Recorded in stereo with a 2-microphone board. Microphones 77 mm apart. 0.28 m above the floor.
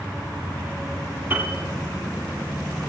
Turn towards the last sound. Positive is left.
turn(degrees=-25)  # may be behind; listen again after turning